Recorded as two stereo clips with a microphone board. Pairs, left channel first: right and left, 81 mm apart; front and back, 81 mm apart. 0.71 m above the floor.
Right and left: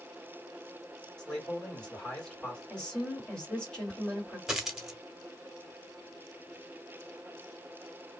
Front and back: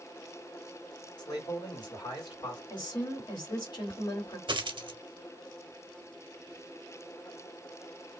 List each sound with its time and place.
1.2 s a man speaking: 10° right, 1.8 m
2.7 s a woman speaking: 10° right, 2.0 m
4.5 s a dropped coin: 175° left, 0.6 m